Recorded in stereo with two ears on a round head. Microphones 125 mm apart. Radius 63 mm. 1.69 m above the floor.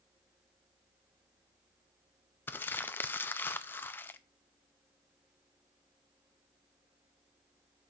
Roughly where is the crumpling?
Centre.